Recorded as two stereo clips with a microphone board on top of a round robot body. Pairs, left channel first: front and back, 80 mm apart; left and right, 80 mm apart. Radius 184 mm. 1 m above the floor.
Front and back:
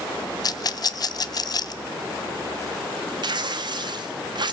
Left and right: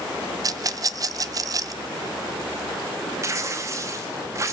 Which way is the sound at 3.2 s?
145° right.